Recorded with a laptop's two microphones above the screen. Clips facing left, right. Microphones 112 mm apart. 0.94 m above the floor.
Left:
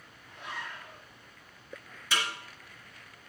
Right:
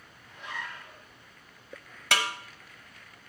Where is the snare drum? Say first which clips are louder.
Right 4 dB; 75° right (ahead or behind), 0.8 m.